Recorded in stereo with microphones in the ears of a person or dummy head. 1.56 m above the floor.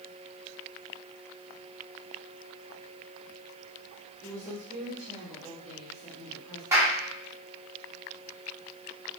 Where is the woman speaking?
10° right (ahead or behind), 2.5 m; by 6.6 s centre (ahead or behind), 3.5 m.